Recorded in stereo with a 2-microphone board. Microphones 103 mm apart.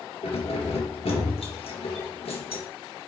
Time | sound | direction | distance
0.2 | keys jangling | 70° left (ahead or behind) | 2.5 m